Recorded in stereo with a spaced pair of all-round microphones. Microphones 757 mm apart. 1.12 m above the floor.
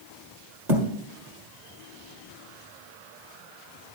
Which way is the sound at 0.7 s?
65° right (ahead or behind).